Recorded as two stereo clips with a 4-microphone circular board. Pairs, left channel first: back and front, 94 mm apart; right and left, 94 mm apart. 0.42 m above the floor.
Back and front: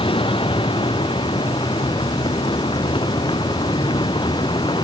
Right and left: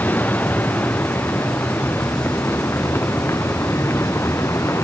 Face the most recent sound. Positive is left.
turn(degrees=-150)